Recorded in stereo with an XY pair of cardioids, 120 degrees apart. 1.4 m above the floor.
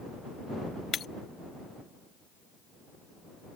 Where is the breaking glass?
50° left.